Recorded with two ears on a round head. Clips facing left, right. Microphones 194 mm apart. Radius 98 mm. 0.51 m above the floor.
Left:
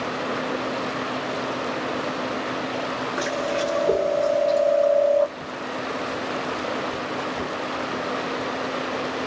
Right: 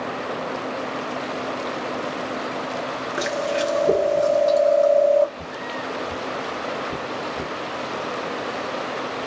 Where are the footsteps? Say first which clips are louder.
Left 1 dB; 65° right (ahead or behind), 1.3 m; by 7.5 s centre (ahead or behind), 0.8 m.